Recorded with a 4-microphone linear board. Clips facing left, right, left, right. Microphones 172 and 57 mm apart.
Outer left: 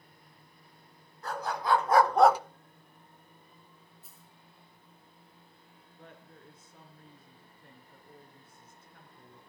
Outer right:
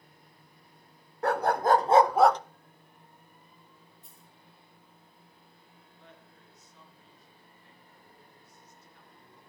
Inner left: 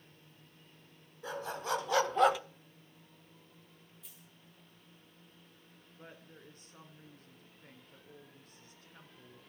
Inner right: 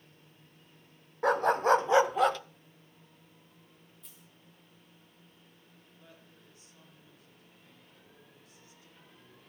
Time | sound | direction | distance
1.2 | a dog barking | 65° right (ahead or behind) | 0.7 m
4.0 | a dropped coin | 5° left (ahead or behind) | 2 m
6.0 | a woman speaking | 50° left (ahead or behind) | 3 m